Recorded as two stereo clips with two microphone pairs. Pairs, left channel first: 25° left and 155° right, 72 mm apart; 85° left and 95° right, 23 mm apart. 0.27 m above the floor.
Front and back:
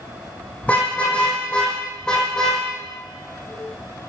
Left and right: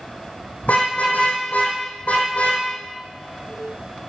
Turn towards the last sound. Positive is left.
turn(degrees=105)